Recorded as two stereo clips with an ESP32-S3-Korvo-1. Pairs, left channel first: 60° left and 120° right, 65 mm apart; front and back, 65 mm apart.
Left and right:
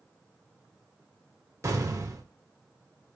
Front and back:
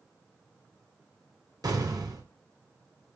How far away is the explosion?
About 4.5 m.